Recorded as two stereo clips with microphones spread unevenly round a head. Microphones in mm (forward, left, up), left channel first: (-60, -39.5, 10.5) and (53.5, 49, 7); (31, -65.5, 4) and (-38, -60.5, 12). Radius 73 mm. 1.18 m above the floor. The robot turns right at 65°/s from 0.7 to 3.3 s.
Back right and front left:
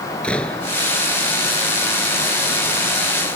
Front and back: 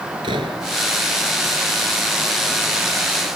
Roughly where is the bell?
I don't hear a bell.